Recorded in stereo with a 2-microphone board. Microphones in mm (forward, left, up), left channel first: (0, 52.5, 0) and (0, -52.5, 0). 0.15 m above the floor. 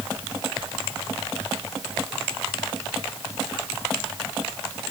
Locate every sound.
Only background noise.